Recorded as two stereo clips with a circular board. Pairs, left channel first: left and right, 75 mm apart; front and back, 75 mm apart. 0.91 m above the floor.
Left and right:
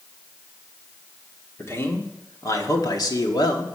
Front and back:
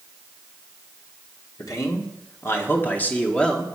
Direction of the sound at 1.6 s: 35° left.